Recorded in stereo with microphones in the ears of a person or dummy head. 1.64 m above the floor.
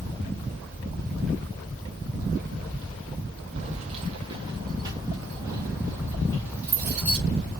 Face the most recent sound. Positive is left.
turn(degrees=-10)  # may be behind; listen again after turning